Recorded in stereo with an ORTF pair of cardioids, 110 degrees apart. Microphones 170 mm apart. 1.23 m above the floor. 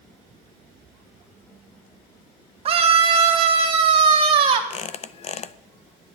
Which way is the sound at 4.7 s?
40° left.